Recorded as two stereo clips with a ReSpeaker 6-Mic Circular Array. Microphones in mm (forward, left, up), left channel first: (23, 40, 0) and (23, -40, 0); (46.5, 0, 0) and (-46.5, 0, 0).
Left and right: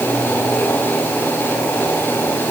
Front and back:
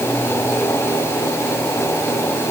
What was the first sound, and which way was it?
Only background noise.